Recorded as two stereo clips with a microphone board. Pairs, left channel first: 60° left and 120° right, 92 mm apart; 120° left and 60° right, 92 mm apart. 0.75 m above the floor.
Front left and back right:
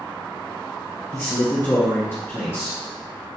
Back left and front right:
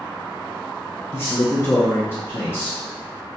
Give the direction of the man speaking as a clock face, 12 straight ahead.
9 o'clock.